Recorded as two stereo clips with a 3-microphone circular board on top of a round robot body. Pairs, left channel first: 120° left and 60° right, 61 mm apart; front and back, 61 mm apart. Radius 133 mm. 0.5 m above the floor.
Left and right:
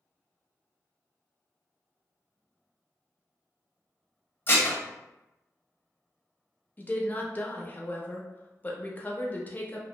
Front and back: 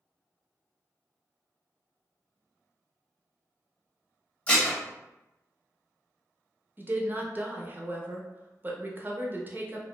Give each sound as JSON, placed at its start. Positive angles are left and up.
{"t": 4.5, "sound": "dishes clattering", "azimuth_deg": 70, "distance_m": 0.9}
{"t": 6.8, "sound": "a woman speaking", "azimuth_deg": 155, "distance_m": 0.7}